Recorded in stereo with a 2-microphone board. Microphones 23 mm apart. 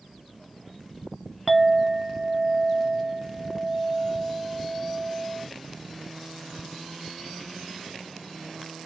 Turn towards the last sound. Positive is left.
turn(degrees=-5)  # may be behind; listen again after turning